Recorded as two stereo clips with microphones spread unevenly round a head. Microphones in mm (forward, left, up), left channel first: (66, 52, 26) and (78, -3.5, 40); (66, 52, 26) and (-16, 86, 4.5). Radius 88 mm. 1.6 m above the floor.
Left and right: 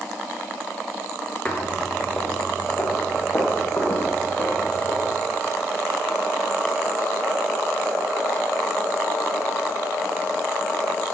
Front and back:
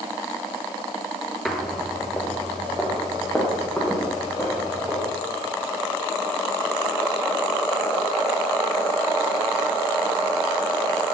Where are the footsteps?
45° left, 1.8 m; by 5.1 s 55° left, 6 m.